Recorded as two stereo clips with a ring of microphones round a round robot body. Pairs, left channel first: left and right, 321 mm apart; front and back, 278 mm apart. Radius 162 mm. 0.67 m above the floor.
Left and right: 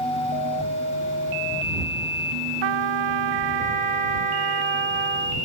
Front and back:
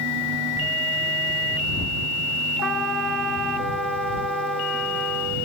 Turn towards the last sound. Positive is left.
turn(degrees=-90)